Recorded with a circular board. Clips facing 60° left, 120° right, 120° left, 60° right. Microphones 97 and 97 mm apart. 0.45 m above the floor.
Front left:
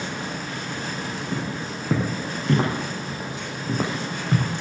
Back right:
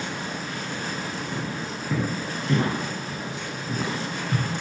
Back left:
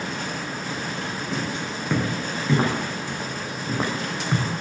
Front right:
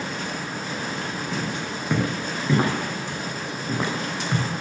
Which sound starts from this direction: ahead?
Footsteps, at 1.3 s.